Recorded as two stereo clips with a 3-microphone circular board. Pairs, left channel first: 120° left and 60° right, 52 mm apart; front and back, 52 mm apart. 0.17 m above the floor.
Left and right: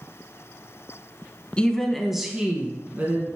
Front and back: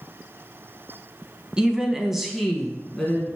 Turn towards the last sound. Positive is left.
turn(degrees=-75)